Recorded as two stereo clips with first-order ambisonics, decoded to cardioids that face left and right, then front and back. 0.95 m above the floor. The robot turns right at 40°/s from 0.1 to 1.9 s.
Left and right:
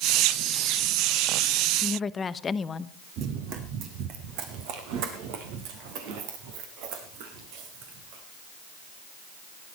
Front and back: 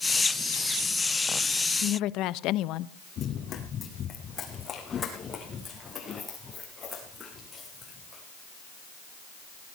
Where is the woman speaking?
20° left, 0.6 m; by 2.9 s 25° left, 0.6 m.